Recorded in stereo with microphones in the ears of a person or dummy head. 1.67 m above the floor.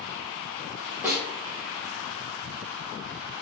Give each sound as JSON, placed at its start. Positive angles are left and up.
{"t": 1.0, "sound": "a snare drum", "side_deg": -15, "distance_m": 1.0}